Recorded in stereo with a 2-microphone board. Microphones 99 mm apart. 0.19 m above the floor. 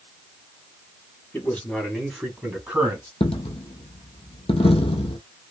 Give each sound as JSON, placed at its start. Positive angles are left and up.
{"t": 1.3, "sound": "a man speaking", "side_deg": 20, "distance_m": 1.5}
{"t": 3.2, "sound": "a dropped coin", "side_deg": 75, "distance_m": 0.6}